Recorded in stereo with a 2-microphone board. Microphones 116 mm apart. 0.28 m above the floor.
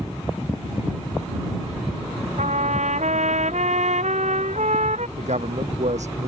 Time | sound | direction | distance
2.4 | a trumpet | 90° right | ?
5.2 | a man speaking | 80° right | ?